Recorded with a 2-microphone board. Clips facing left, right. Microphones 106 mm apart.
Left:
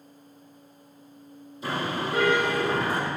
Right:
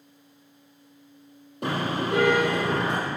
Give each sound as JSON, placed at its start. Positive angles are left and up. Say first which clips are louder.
{"t": 1.6, "sound": "a car horn", "louder": "right 2 dB", "side_deg": -65, "distance_m": 6.5}